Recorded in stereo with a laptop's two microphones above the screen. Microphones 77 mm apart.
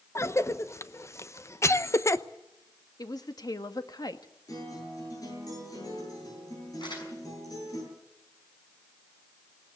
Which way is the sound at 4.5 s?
55° left (ahead or behind).